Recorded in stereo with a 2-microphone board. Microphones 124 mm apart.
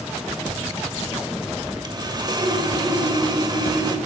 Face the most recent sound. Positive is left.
turn(degrees=-35)  # may be behind; listen again after turning